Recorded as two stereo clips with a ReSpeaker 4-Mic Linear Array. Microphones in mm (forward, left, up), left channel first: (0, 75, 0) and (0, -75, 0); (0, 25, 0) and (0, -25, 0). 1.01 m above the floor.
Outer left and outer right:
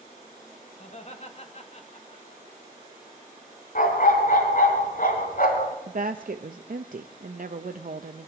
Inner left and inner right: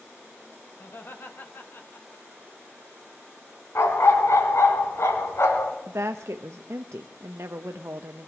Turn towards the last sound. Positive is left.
turn(degrees=-65)  # may be behind; listen again after turning